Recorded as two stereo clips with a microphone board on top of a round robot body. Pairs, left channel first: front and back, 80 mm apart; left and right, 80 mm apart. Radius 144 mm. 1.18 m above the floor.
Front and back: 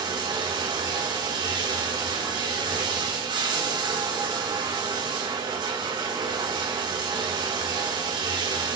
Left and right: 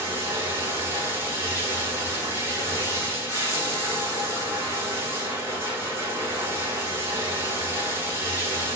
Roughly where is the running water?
Behind right.